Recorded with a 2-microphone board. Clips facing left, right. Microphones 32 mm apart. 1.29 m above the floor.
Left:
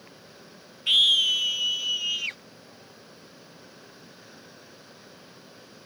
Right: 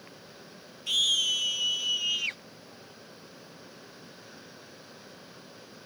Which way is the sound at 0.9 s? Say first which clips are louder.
Left 6 dB; 45° left (ahead or behind).